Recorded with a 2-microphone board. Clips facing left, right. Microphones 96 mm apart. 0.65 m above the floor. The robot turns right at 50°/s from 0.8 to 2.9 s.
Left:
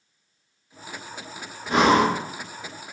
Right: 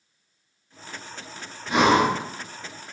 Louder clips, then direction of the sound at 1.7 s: Left 1 dB; 35° left (ahead or behind).